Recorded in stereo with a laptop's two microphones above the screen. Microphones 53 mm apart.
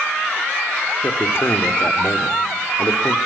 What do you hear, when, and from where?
1.0 s a man speaking: 55° left (ahead or behind), 2.5 m